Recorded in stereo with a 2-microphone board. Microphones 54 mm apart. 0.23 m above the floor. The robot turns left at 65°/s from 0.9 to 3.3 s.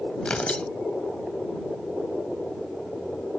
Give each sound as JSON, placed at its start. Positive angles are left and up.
{"t": 0.2, "sound": "tearing paper", "side_deg": 20}